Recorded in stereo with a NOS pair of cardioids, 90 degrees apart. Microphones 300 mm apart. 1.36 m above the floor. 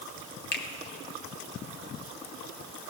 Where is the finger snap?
35° left, 1.7 m.